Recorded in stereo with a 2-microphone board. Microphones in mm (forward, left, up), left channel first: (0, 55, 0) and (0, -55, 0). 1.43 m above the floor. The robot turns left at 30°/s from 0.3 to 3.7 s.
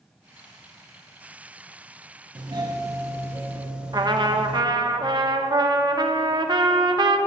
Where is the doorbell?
125° right, 0.7 m; by 4.6 s 165° right, 0.7 m.